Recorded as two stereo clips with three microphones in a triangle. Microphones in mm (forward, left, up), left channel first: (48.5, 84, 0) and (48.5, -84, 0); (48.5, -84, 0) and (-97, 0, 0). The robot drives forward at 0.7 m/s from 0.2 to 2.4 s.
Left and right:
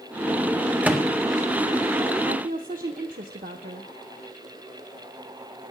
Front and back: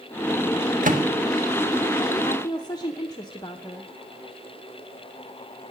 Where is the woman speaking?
85° right, 0.9 m; by 3.9 s 90° right, 0.9 m.